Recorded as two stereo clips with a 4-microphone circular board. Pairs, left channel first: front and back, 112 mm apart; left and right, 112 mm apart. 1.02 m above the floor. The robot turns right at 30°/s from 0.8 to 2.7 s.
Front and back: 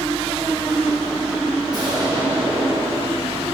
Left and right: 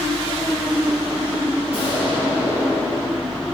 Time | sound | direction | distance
1.7 | an explosion | 125° left | 3 m